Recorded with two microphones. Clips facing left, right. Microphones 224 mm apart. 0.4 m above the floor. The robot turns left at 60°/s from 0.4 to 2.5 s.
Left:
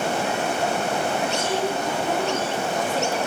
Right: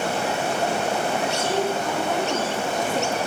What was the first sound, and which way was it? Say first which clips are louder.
A woman speaking: right 1 dB; 60° left.